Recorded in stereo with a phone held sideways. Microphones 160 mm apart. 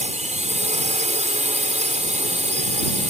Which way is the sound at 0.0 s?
45° right (ahead or behind).